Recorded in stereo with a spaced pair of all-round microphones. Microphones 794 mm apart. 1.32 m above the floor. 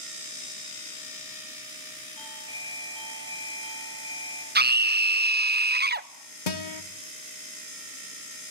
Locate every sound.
2.2 s a doorbell: 60° right (ahead or behind), 8 m
4.5 s a scream: 15° right (ahead or behind), 0.6 m
6.5 s a guitar: 70° left (ahead or behind), 1.3 m